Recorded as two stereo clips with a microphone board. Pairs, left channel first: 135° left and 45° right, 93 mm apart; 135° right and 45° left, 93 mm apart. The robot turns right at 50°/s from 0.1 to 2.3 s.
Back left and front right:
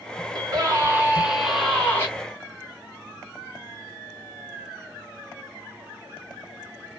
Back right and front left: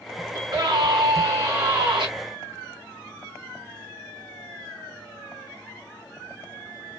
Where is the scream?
10° right, 2 m; by 2.1 s 75° left, 2 m.